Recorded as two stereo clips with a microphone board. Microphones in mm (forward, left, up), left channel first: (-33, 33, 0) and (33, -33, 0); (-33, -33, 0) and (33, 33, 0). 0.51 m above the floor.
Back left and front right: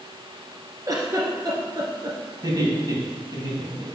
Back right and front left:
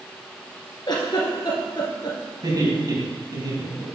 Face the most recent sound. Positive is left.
turn(degrees=0)